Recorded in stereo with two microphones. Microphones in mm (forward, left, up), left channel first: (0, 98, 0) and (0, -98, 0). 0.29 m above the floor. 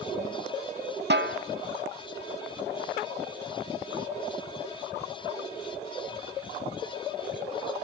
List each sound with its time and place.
1.1 s a snare drum: 60° right (ahead or behind), 0.7 m